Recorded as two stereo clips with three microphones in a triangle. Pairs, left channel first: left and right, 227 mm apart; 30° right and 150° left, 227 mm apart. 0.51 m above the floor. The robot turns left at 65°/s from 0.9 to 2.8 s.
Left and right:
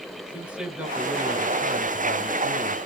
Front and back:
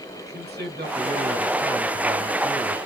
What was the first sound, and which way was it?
A man speaking, 175° right.